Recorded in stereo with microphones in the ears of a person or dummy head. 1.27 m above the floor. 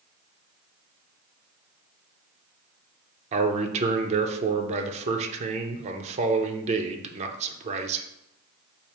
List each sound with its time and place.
3.3 s a man speaking: 35° right (ahead or behind), 0.7 m